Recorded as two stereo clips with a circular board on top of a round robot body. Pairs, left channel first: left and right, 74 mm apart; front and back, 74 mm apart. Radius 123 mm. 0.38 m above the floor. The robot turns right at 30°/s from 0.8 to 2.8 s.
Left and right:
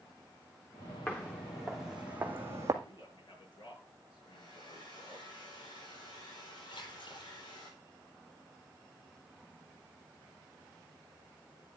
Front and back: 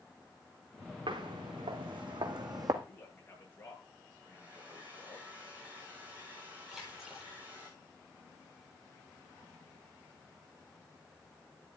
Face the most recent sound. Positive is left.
turn(degrees=90)